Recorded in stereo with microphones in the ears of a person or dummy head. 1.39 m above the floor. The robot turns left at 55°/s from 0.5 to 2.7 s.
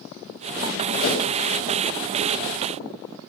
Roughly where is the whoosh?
Left.